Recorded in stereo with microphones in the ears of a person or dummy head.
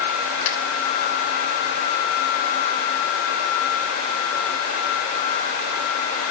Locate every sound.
0.5 s a finger snap: 50° left (ahead or behind), 3 m